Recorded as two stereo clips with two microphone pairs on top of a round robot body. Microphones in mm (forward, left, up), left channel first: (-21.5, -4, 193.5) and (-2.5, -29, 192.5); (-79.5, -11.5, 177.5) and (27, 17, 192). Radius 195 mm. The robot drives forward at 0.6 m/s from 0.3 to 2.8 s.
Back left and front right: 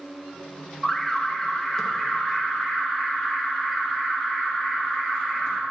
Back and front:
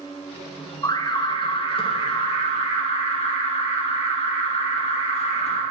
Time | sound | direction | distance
0.8 | an alarm | 160° right | 1.0 m